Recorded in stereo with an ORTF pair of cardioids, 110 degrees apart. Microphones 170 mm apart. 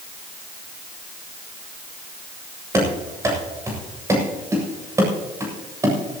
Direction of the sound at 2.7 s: 20° right.